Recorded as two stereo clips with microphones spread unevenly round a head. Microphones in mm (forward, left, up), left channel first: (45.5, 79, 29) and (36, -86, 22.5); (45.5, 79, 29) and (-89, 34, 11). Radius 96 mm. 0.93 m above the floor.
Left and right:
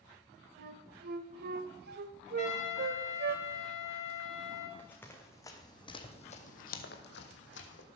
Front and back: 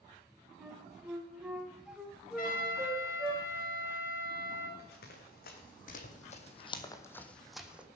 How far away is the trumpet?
About 4 m.